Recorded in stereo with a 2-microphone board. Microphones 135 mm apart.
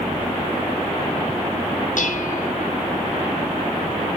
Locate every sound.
2.0 s dishes clattering: 75° left (ahead or behind), 1.1 m